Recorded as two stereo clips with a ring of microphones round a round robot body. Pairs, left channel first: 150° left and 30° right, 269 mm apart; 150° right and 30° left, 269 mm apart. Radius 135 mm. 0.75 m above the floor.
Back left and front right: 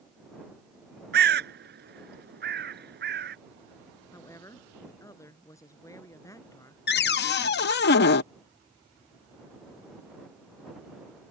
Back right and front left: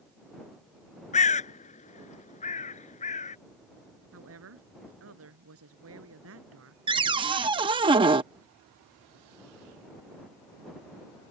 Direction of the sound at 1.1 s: 85° right.